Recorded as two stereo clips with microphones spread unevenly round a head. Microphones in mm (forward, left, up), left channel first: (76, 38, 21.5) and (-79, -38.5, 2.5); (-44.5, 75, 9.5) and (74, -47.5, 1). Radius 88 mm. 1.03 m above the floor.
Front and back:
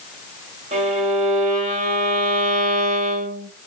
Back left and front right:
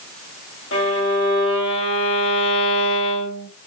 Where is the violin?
160° left, 1.5 m.